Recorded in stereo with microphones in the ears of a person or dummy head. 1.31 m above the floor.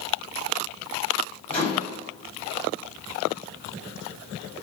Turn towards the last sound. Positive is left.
turn(degrees=10)  # may be behind; listen again after turning